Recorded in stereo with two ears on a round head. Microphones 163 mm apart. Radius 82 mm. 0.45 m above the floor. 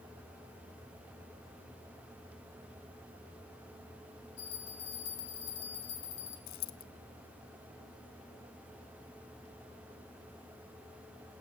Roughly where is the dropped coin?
Left.